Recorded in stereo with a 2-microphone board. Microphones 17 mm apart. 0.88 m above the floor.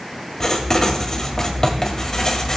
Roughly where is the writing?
Left.